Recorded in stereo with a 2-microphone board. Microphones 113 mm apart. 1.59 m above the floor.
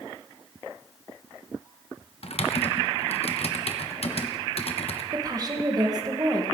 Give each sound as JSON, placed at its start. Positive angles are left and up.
{"t": 2.2, "sound": "typing on a keyboard", "side_deg": 60, "distance_m": 1.1}
{"t": 5.1, "sound": "a woman speaking", "side_deg": -35, "distance_m": 1.8}